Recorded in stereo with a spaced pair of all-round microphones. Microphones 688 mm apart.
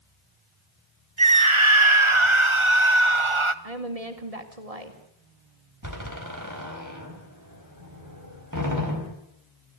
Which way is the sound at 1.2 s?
45° right (ahead or behind).